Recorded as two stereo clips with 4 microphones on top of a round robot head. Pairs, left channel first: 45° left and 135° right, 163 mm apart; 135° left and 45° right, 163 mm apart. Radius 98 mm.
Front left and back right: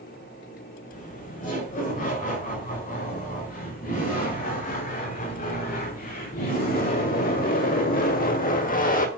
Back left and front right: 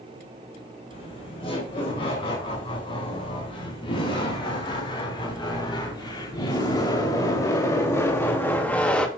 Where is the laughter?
80° left, 5.5 m; by 9.1 s 55° left, 1.6 m.